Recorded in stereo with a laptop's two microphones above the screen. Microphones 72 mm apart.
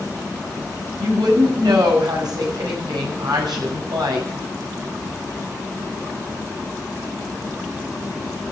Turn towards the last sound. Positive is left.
turn(degrees=-85)